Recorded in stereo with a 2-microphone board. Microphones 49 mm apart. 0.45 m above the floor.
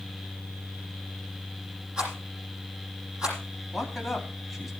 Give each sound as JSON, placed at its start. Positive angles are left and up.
{"t": 2.0, "sound": "a rattle", "side_deg": -20, "distance_m": 9.0}
{"t": 3.7, "sound": "a man speaking", "side_deg": -5, "distance_m": 3.5}